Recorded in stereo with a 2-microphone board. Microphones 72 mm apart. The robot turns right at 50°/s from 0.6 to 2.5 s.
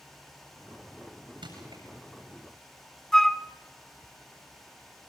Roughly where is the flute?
Centre.